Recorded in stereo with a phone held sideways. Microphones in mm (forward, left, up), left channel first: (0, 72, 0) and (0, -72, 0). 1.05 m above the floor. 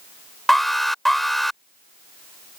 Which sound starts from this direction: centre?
An alarm, at 0.5 s.